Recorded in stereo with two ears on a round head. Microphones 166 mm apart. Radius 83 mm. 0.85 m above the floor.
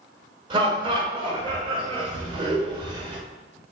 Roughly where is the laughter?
Right.